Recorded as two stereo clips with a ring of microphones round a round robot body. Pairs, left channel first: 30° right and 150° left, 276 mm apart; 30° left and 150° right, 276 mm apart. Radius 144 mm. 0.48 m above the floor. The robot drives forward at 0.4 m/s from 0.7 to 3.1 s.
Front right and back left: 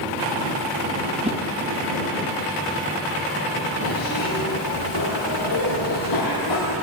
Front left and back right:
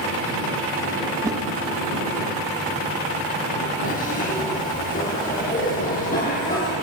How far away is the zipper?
About 7.5 m.